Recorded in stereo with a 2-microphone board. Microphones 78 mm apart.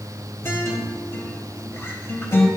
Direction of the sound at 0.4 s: 35° left (ahead or behind).